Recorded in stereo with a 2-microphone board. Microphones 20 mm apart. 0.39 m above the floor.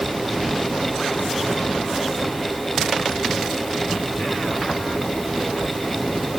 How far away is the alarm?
I don't hear an alarm.